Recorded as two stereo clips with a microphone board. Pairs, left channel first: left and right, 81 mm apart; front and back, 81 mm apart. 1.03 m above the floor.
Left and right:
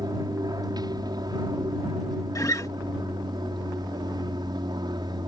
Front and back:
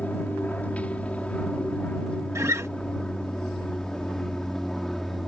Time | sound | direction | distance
0.0 | an aircraft | 70° right | ?
2.4 | a guitar | 130° left | ?